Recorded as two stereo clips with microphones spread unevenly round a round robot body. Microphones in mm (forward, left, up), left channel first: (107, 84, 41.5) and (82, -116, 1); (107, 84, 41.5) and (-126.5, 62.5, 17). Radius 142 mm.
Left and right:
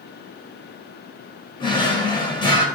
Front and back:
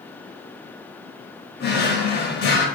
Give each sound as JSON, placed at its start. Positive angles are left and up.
{"t": 1.6, "sound": "a drawer", "azimuth_deg": 30, "distance_m": 0.8}